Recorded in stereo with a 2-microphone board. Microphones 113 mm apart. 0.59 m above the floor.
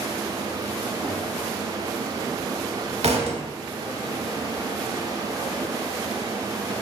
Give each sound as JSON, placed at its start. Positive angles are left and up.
{"t": 3.0, "sound": "a thud", "side_deg": -70, "distance_m": 0.7}